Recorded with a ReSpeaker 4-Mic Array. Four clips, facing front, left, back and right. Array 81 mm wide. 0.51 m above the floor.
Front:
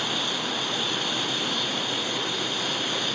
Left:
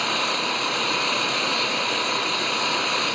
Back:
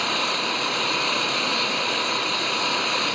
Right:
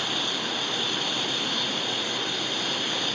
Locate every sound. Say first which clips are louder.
0.0 s an engine running: left 6 dB, back 4 dB; 130° left